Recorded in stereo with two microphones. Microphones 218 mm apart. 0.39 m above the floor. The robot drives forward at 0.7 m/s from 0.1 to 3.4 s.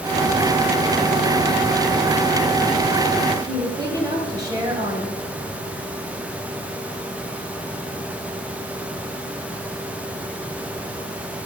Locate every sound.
3.5 s a woman speaking: 15° right (ahead or behind), 2.5 m